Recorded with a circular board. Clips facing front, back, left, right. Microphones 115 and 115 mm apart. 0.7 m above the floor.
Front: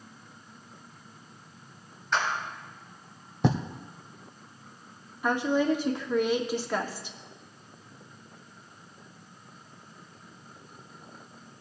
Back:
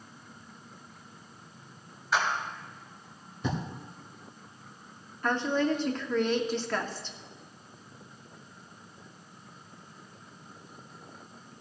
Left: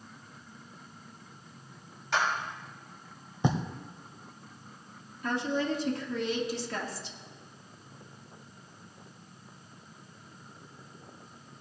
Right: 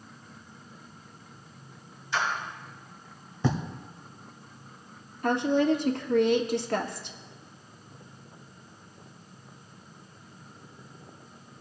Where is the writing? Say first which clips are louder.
Front 7 dB, right 1 dB; 20° left, 1.0 m.